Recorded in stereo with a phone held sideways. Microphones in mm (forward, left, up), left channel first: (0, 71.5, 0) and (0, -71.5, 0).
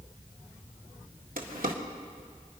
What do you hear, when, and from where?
1.4 s a drawer: 85° right, 1.8 m